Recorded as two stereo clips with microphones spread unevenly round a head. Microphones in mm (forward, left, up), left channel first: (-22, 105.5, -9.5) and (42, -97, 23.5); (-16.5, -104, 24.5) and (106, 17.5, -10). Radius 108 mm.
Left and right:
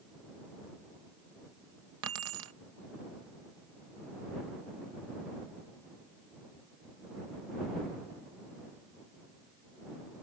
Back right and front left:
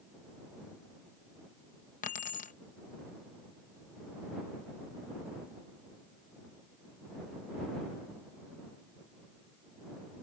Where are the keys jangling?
95° right.